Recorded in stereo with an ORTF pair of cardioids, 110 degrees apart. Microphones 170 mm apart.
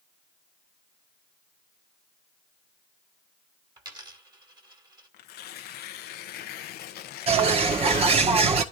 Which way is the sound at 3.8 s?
25° right.